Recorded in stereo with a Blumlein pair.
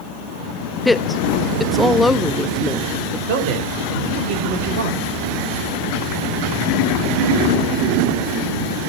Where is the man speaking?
45° right, 4 m.